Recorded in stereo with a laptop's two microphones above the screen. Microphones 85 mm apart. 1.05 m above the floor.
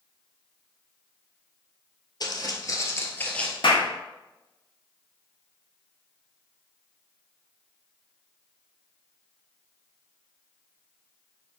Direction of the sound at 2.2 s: 45° left (ahead or behind).